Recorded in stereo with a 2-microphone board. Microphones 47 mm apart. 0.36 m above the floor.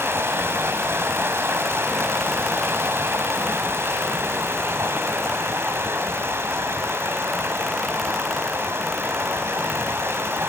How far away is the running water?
About 1.9 m.